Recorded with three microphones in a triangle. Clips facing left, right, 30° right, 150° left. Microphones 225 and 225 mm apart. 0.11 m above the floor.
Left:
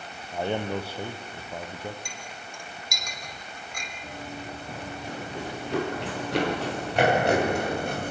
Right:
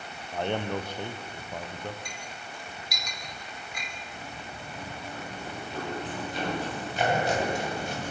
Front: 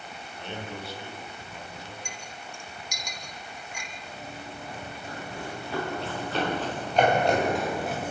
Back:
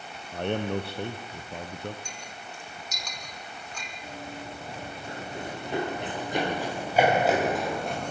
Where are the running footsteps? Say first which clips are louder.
Left 5 dB, back 3 dB; 90° left, 8 m; by 8.1 s 55° left, 5 m.